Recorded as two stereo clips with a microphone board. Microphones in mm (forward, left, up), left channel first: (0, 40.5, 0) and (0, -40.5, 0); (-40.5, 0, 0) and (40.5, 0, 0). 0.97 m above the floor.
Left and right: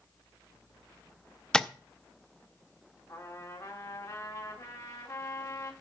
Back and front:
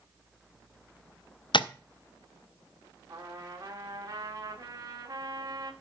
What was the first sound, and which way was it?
Tapping, 170° left.